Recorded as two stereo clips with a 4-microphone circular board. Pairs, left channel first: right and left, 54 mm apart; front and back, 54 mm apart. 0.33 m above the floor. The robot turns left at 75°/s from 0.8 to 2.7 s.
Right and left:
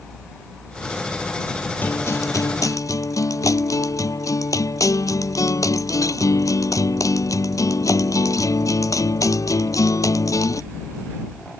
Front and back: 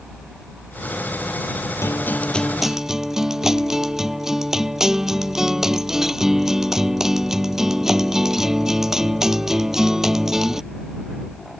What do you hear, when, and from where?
1.8 s a guitar: 30° right; by 10.6 s 100° right